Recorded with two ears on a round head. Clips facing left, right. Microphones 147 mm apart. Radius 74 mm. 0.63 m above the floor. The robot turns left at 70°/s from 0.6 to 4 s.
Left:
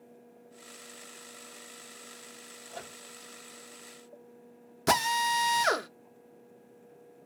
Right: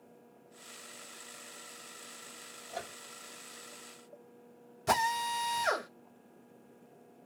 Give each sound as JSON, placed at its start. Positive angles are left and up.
{"t": 2.7, "sound": "a microwave", "side_deg": -20, "distance_m": 1.4}
{"t": 4.9, "sound": "a drill", "side_deg": 70, "distance_m": 0.6}